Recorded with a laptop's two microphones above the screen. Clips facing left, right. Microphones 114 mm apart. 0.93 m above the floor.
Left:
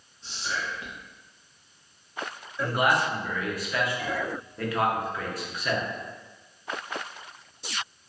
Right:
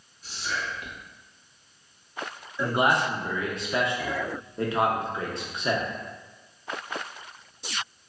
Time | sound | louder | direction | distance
0.2 | whispering | even | 25° left (ahead or behind) | 0.6 m
2.6 | a man speaking | right 1 dB | 25° right (ahead or behind) | 0.6 m